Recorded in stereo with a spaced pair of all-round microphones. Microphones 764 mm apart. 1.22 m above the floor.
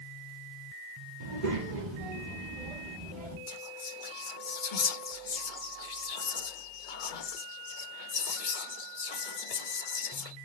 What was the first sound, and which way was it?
A child speaking, 70° right (ahead or behind).